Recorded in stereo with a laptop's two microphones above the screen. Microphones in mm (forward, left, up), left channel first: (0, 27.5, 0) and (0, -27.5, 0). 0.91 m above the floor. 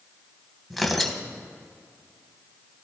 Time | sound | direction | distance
0.7 | tearing paper | centre (ahead or behind) | 1.5 m